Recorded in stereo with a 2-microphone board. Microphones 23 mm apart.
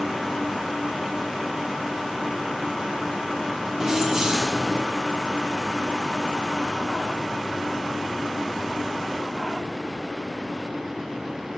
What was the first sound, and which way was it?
Keys jangling, 20° right (ahead or behind).